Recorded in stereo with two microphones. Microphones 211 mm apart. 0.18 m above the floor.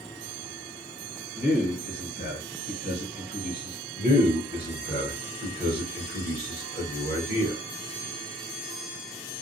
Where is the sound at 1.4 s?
50° left (ahead or behind), 1.9 m.